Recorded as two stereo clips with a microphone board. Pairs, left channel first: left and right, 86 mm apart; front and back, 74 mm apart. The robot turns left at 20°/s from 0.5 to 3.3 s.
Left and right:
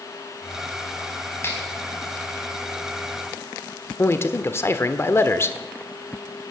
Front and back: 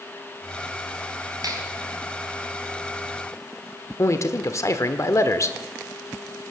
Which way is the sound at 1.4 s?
150° left.